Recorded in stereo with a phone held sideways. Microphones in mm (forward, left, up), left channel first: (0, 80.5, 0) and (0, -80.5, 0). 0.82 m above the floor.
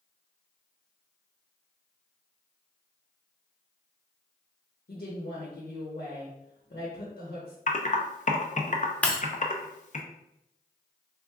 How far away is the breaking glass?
About 0.7 m.